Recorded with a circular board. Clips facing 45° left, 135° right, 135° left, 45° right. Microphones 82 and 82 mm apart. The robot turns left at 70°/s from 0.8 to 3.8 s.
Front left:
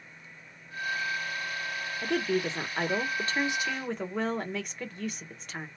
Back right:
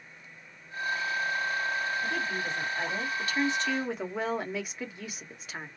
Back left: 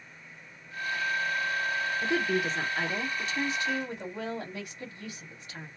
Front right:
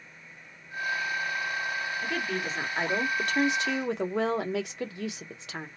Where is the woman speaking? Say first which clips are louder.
Front left 3 dB, back left 6 dB; 75° left, 0.9 m; by 5.7 s 50° right, 0.9 m.